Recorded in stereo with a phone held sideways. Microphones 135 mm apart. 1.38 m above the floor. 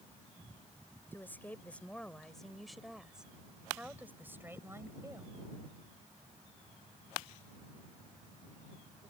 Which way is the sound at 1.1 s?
15° left (ahead or behind).